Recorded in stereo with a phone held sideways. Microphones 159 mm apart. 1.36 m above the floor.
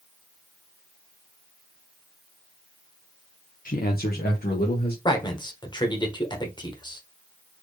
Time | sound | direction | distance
3.6 | a man speaking | 60° left (ahead or behind) | 0.6 m
5.0 | a man speaking | 30° left (ahead or behind) | 1.3 m